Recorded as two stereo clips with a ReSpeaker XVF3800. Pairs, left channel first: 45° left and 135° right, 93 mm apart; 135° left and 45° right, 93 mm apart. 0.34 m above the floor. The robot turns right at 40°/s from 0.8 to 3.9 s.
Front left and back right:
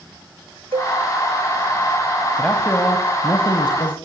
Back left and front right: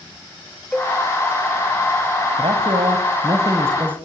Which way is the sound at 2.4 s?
40° right.